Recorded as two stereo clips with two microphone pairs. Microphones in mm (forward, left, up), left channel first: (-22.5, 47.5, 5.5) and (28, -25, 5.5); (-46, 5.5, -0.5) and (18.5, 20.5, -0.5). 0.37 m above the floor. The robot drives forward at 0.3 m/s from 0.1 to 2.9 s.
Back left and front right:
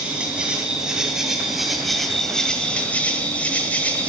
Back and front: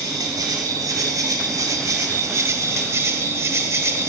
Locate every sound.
0.0 s an insect: 20° left, 1.4 m; by 4.1 s 55° left, 0.7 m